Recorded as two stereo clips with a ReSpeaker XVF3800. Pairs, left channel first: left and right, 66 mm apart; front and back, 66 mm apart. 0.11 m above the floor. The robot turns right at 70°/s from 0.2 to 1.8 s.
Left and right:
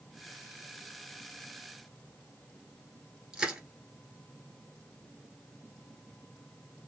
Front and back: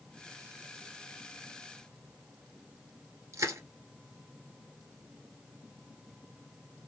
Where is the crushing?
170° right, 1.7 m.